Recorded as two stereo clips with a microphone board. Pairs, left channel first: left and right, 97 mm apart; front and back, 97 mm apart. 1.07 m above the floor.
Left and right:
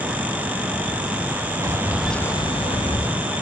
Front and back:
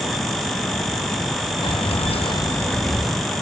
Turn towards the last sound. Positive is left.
turn(degrees=95)